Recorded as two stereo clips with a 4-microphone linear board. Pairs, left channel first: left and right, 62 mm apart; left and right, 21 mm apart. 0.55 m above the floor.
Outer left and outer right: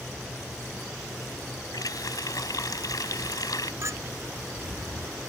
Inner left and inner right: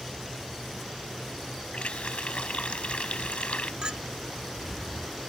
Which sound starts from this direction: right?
A clink, at 3.8 s.